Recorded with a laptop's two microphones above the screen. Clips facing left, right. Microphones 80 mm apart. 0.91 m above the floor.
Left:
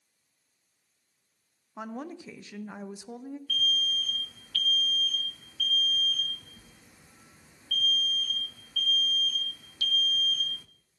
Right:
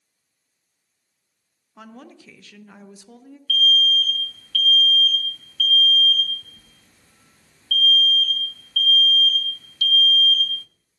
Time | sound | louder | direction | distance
1.8 | a woman speaking | left 4 dB | 20° left (ahead or behind) | 0.5 m
3.5 | an alarm | right 11 dB | 15° left (ahead or behind) | 0.5 m